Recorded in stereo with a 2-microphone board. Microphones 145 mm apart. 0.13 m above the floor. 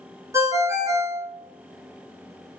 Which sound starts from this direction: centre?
A ringtone, at 0.3 s.